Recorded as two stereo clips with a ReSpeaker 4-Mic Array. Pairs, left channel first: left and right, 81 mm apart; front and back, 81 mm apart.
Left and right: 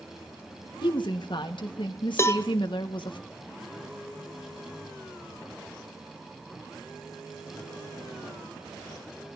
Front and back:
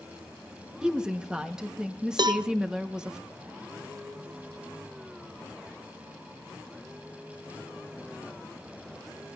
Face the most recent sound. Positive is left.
turn(degrees=150)